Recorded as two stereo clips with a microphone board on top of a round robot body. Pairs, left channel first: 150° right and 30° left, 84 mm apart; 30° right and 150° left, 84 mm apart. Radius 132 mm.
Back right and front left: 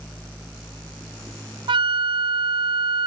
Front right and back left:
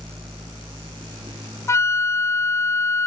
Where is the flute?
25° left.